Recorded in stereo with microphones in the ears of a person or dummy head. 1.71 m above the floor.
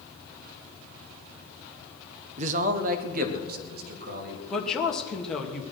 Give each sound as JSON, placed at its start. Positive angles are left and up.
{"t": 2.4, "sound": "a man speaking", "side_deg": -45, "distance_m": 1.3}
{"t": 4.5, "sound": "a woman speaking", "side_deg": 5, "distance_m": 2.5}